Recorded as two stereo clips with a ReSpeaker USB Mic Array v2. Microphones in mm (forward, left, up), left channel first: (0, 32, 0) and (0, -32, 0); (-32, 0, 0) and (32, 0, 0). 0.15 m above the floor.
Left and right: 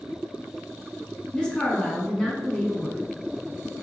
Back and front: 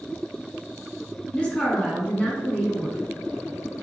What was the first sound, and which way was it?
A woman speaking, 145° left.